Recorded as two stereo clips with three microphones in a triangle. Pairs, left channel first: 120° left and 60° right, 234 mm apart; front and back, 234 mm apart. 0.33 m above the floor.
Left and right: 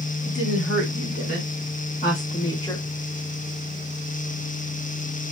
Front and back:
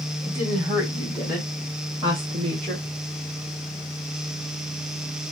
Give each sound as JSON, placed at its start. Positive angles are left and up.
{"t": 0.2, "sound": "a woman speaking", "azimuth_deg": 100, "distance_m": 2.5}